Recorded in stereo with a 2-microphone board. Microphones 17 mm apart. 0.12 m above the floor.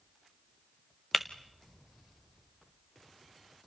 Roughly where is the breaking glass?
Centre.